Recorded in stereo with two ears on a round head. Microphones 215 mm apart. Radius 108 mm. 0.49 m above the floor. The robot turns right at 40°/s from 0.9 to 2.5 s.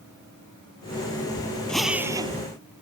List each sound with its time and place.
1.7 s a drill: 5° left (ahead or behind); by 2.4 s 25° right (ahead or behind)